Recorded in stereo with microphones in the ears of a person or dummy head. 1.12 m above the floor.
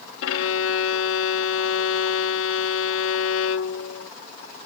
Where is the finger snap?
I don't hear a finger snap.